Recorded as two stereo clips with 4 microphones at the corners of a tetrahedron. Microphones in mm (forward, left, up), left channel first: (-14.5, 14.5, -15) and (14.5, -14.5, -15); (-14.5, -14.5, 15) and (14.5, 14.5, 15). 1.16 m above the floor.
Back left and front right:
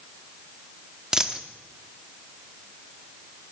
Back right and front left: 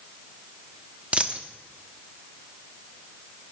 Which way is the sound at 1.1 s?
15° left.